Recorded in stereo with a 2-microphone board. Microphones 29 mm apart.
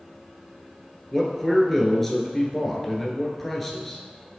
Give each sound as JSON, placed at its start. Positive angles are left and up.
{"t": 1.1, "sound": "a man speaking", "side_deg": 5, "distance_m": 1.5}